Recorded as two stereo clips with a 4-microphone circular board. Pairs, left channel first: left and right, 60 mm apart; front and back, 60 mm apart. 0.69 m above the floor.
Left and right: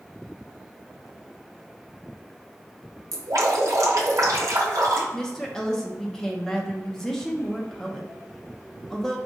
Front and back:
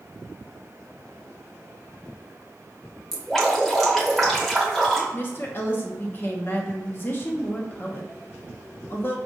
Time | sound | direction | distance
3.1 | dripping | 85° right | 0.9 m
5.1 | a woman speaking | 15° left | 0.7 m